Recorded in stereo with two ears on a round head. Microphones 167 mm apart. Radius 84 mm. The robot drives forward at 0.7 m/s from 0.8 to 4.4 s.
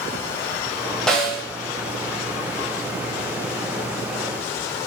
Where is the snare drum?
5° left (ahead or behind), 1.3 m.